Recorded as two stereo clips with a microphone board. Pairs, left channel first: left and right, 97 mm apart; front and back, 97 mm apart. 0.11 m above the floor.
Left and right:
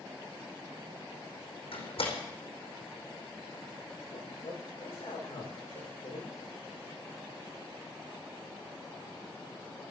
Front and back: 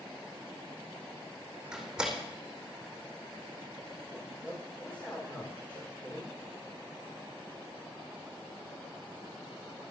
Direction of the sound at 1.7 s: 100° left.